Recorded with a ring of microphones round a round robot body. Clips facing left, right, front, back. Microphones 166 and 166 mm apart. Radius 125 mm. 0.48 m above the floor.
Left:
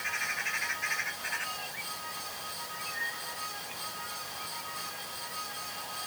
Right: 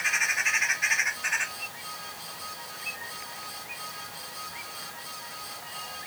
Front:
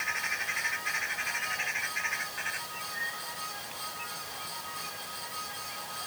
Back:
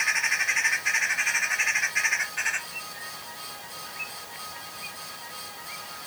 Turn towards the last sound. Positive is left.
No sound to turn to.